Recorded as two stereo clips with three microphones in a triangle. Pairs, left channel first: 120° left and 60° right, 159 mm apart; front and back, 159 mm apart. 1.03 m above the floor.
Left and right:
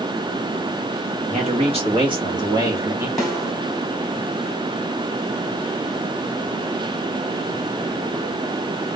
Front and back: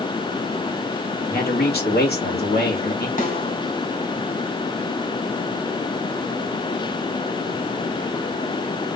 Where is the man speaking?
15° right, 1.9 m; by 3.1 s 15° left, 1.7 m.